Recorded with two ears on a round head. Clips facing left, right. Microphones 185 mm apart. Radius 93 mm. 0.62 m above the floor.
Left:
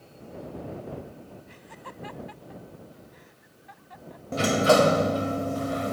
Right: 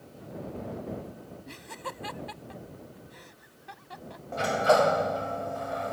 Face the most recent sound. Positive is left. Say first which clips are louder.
# left 3 dB
turn(degrees=40)  # may be behind; listen again after turning